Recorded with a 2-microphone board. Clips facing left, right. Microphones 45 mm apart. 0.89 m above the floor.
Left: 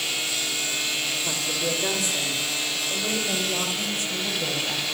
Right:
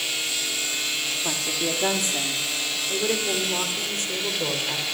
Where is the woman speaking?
65° right (ahead or behind), 2 m; by 4.8 s 75° right (ahead or behind), 4 m.